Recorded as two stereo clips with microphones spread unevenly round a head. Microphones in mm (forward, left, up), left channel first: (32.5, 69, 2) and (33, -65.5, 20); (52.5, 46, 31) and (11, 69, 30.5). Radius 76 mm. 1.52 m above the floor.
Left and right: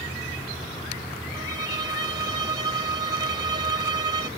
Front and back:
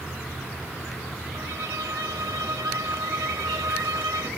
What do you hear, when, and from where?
1.3 s a violin: 150° right